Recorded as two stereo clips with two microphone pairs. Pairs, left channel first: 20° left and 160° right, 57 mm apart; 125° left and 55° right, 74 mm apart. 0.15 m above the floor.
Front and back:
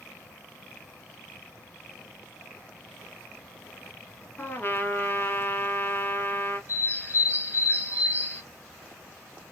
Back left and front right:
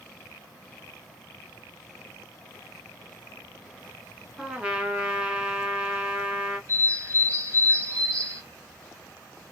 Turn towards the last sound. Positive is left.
turn(degrees=-15)